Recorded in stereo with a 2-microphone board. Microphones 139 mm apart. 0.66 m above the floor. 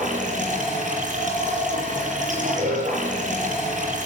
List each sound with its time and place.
0.0 s running water: 65° right (ahead or behind), 7.5 m